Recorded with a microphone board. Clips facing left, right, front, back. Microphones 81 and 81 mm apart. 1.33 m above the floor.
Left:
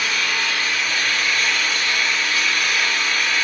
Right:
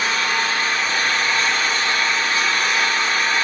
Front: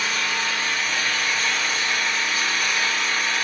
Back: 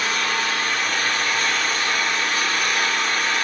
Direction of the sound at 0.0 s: 145° right.